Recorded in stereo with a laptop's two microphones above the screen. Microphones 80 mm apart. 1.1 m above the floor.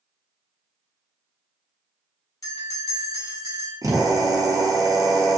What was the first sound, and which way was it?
A bell, 45° left (ahead or behind).